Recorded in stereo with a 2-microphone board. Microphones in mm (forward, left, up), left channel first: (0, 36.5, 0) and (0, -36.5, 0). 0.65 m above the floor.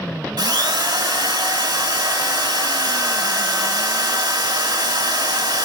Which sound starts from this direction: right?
A drill, at 0.4 s.